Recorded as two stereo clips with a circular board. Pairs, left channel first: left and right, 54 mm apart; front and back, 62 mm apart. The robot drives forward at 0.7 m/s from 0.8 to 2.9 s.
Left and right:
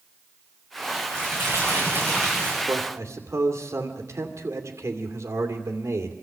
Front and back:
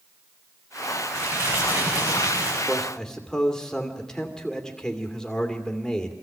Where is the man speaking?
75° right, 2.5 m; by 6.1 s 80° right, 2.5 m.